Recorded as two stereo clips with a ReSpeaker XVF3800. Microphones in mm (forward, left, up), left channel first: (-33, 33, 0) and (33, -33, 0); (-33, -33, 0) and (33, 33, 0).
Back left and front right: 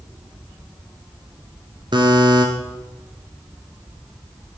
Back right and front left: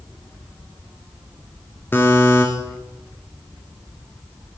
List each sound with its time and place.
1.9 s a buzzer: 70° right, 1.5 m